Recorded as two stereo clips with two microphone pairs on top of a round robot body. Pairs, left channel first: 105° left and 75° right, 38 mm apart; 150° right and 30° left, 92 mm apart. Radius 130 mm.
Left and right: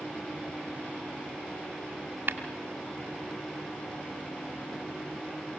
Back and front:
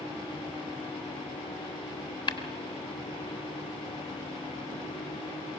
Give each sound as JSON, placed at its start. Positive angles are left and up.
{"t": 2.3, "sound": "tapping", "azimuth_deg": -115, "distance_m": 1.8}